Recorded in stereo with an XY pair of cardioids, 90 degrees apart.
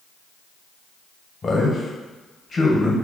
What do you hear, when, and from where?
1.4 s a man speaking: 35° left, 1.2 m